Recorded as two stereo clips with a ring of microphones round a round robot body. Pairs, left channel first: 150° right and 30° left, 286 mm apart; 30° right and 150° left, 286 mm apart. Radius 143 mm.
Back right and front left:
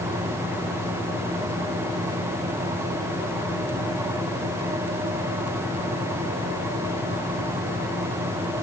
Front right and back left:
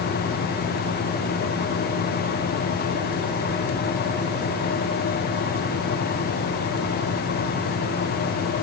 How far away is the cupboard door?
I don't hear a cupboard door.